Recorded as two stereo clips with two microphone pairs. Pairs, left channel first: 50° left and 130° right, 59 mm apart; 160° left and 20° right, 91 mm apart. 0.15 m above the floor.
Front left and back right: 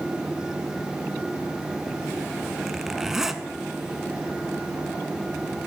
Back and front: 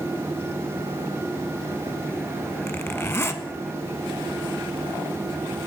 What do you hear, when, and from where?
2.7 s a zipper: 155° left, 0.5 m